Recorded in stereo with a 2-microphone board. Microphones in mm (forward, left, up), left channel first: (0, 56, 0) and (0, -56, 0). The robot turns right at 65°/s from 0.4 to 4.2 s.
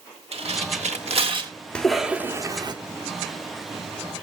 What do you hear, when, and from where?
0.3 s tearing paper: 65° right (ahead or behind), 1.5 m; by 1.5 s 40° right (ahead or behind), 1.5 m
1.8 s a cough: 170° left, 1.0 m; by 2.7 s 125° right, 1.0 m